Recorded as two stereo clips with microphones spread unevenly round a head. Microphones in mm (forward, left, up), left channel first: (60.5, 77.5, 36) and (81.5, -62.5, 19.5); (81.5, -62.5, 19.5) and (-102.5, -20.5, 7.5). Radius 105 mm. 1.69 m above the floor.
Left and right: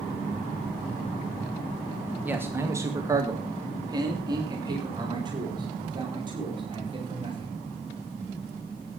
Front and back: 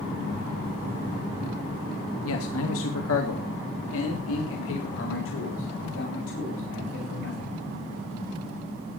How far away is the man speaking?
About 1.4 m.